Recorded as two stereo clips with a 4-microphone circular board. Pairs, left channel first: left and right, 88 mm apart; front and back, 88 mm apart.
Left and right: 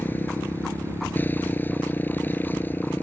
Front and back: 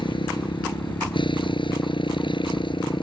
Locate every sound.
0.0 s a motorcycle: 20° left